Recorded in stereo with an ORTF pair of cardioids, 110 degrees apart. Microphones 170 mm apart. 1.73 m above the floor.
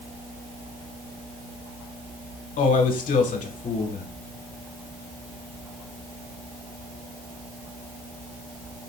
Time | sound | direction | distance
2.6 | a man speaking | 55° left | 1.5 m